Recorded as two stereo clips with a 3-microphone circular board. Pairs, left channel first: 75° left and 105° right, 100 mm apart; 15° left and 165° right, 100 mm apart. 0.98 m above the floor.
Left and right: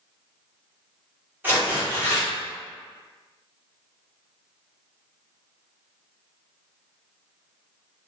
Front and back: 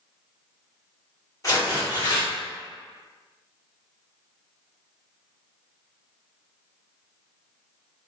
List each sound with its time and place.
1.4 s tearing paper: 35° right, 1.7 m